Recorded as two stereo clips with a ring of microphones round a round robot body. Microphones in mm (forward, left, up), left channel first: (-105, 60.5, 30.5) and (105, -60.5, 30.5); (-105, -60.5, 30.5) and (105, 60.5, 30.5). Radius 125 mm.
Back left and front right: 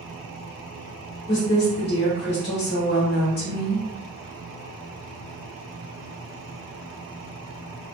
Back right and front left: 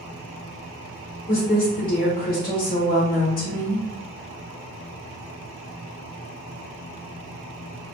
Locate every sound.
1.3 s a woman speaking: 175° left, 1.1 m